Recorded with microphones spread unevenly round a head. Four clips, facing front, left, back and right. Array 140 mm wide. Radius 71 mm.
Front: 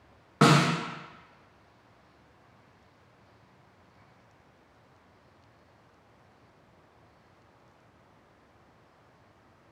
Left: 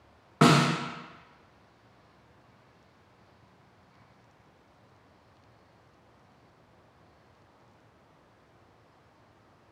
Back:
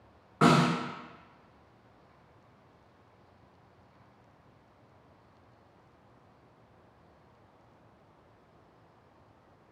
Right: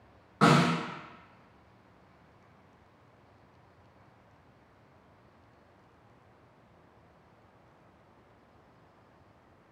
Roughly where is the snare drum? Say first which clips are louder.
Left 2 dB, front 1 dB; ahead left.